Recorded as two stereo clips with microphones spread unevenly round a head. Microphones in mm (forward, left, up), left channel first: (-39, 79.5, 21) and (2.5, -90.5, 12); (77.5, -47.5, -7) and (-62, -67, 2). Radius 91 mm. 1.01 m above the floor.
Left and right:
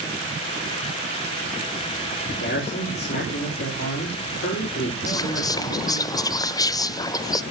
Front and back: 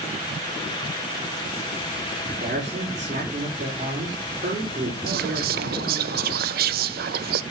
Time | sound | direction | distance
2.3 | a man speaking | 135° left | 4 m
5.1 | whispering | 175° left | 0.5 m